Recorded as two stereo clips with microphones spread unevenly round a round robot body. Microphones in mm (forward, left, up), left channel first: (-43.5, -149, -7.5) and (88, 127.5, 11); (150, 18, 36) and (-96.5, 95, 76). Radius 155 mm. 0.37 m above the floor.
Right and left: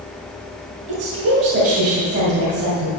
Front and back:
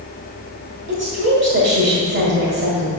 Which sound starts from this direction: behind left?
A woman speaking, at 0.9 s.